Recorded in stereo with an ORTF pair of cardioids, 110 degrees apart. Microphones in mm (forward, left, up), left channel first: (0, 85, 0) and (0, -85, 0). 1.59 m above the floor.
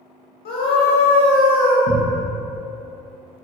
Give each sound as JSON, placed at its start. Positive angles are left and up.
{"t": 0.5, "sound": "a scream", "azimuth_deg": 70, "distance_m": 0.6}
{"t": 1.9, "sound": "a cupboard door", "azimuth_deg": -65, "distance_m": 0.9}